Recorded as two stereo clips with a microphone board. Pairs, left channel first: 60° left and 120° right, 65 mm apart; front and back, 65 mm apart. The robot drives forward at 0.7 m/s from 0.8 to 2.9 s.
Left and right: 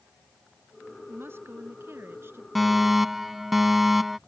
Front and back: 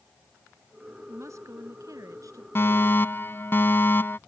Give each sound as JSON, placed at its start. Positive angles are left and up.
{"t": 1.1, "sound": "a woman speaking", "azimuth_deg": -160}
{"t": 2.5, "sound": "a fire alarm", "azimuth_deg": -30}